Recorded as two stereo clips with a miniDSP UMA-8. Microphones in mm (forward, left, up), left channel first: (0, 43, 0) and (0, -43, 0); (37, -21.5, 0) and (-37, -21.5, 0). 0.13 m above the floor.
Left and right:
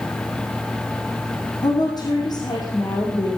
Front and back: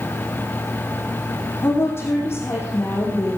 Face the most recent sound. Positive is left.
turn(degrees=55)